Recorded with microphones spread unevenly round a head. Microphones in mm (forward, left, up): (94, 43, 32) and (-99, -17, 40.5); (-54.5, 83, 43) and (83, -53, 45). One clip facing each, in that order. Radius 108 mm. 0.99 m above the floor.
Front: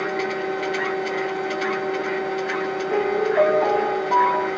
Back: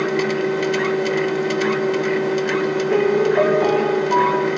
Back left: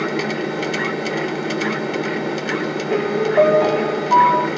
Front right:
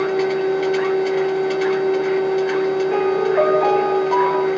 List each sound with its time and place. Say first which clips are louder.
0.0 s a machine running: back 6 dB, front right 4 dB; 165° left, 0.9 m
2.9 s a piano: back 4 dB, front right 1 dB; 155° left, 0.7 m